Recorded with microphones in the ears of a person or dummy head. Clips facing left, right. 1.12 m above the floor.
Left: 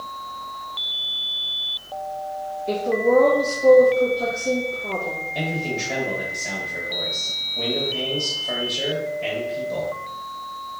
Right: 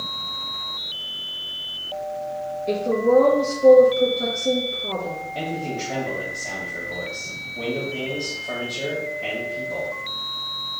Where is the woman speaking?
30° right (ahead or behind), 1.3 m.